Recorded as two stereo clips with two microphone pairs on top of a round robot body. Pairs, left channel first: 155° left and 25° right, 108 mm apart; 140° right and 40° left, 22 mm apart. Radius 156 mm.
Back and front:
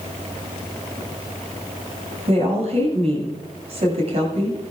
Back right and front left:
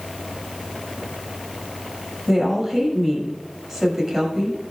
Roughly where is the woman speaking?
Ahead right.